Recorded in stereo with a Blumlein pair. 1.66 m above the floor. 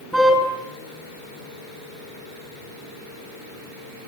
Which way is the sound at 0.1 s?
Straight ahead.